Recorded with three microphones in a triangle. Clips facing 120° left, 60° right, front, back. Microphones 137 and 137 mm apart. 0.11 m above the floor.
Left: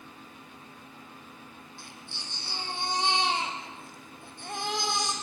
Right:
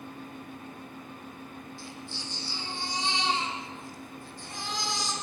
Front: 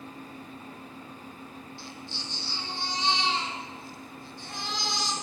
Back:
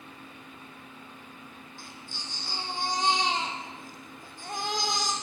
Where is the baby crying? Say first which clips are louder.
Right 5 dB, front 2 dB; 140° left, 4 m.